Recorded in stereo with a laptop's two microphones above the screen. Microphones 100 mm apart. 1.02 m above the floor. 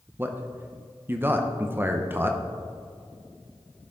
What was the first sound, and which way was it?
A man speaking, 20° right (ahead or behind).